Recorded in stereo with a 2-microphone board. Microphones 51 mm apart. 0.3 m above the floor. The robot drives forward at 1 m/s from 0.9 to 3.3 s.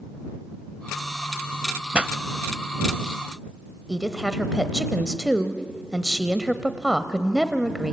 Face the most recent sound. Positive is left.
turn(degrees=-10)  # may be behind; listen again after turning